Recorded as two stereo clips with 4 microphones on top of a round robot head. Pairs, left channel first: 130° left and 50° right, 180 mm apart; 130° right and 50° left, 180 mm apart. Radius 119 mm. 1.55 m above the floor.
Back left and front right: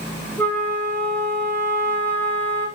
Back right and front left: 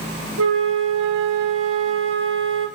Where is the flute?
50° left, 0.5 m.